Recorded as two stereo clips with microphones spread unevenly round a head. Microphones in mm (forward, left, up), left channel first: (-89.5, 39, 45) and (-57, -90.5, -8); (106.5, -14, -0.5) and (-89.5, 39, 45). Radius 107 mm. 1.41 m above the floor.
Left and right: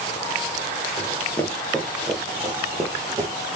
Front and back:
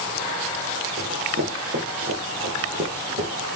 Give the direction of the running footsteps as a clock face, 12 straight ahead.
7 o'clock.